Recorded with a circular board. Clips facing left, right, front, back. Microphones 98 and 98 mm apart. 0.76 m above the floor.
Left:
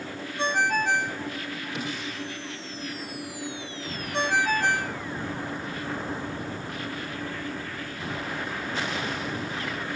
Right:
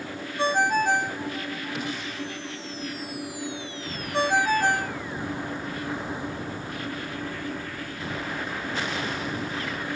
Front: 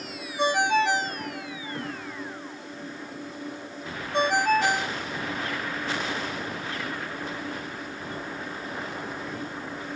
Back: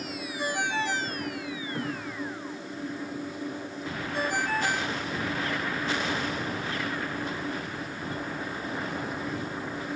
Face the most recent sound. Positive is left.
turn(degrees=-15)